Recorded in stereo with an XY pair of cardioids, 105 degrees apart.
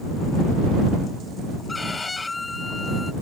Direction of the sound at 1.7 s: 25° left.